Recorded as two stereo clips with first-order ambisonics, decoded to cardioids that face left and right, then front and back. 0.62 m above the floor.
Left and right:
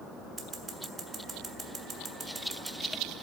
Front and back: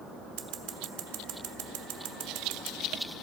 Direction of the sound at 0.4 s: 160° right.